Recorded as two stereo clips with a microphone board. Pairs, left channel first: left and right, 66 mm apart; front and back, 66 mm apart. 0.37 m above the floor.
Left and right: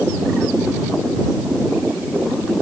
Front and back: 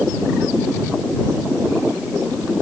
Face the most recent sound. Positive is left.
No sound to turn to.